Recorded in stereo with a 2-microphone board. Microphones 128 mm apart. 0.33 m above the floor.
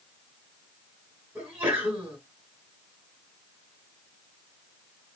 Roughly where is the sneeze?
Centre.